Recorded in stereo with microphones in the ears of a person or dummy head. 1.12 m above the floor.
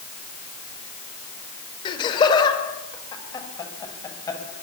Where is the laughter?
30° left (ahead or behind), 5 m; by 4.4 s 20° left (ahead or behind), 8 m.